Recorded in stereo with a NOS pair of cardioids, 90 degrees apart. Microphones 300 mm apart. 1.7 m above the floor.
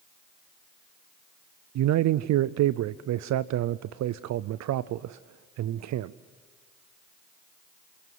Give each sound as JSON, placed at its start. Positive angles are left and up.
{"t": 1.8, "sound": "a man speaking", "azimuth_deg": -65, "distance_m": 0.6}